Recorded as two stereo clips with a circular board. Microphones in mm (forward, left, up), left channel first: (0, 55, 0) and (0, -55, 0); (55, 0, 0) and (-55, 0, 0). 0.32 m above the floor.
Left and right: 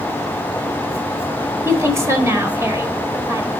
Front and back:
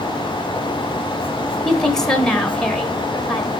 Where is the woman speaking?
80° right, 1.2 m.